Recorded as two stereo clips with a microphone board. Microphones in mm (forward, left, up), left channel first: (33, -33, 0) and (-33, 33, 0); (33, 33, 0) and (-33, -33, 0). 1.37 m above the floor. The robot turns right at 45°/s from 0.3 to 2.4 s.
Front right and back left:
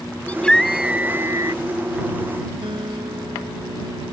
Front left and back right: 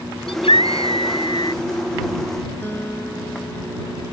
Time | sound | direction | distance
0.3 | a scream | 30° left | ?
2.6 | a guitar | 115° left | ?